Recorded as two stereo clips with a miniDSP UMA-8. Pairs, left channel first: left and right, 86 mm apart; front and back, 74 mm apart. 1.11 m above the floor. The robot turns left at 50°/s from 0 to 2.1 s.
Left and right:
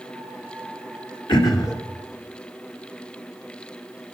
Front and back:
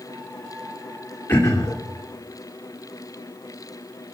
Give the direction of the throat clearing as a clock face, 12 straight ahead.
10 o'clock.